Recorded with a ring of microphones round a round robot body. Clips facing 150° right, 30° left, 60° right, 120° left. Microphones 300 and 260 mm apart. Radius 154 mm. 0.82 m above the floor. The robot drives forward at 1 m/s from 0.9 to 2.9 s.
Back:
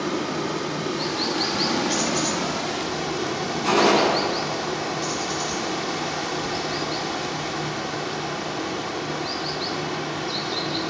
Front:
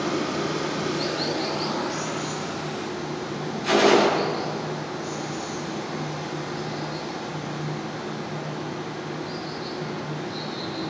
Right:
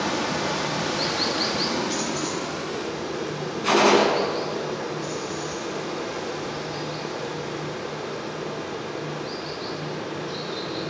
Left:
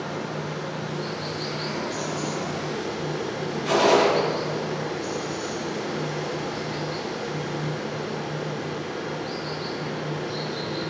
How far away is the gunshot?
About 6 m.